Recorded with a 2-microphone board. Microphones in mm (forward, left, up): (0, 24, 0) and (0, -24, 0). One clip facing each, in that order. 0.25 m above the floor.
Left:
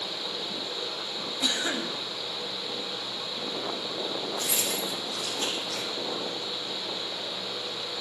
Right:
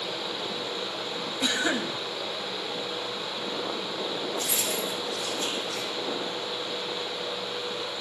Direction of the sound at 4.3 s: 85° left.